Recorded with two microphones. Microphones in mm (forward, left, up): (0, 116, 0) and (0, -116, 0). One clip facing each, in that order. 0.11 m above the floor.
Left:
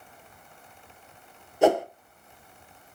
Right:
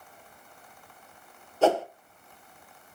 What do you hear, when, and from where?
1.6 s a whoosh: 15° left (ahead or behind), 1.1 m